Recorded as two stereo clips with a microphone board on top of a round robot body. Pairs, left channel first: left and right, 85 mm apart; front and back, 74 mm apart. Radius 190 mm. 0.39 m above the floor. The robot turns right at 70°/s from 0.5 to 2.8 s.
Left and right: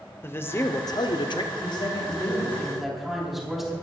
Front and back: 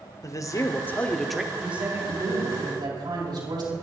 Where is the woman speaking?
95° left, 5 m; by 3.8 s straight behind, 5 m.